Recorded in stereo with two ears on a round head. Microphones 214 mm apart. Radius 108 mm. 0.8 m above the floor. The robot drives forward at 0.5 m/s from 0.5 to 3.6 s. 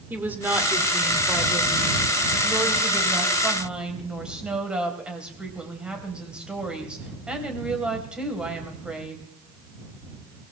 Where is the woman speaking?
10° right (ahead or behind), 1.9 m; by 9.2 s 5° right (ahead or behind), 3.5 m.